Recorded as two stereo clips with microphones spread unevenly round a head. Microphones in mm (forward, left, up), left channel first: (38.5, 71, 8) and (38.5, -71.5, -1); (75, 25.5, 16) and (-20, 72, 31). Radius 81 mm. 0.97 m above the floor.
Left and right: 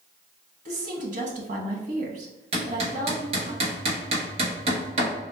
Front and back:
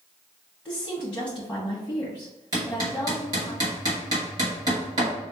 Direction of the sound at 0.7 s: 100° right.